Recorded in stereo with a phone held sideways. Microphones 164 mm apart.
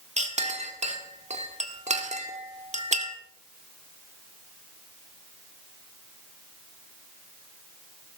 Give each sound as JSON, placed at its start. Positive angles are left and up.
{"t": 0.2, "sound": "a clink", "side_deg": -45, "distance_m": 1.7}